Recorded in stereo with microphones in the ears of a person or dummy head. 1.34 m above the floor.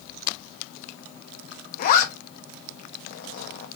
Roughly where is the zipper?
Left.